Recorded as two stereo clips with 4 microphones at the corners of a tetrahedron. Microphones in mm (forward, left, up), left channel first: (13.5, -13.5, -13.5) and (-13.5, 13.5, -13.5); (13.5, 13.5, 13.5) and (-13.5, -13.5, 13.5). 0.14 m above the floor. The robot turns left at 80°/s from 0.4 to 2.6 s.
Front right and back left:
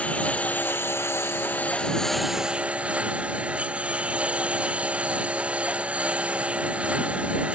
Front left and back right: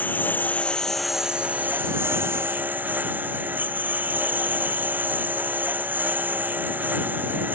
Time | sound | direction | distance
0.0 | a lawn mower | 10° left | ?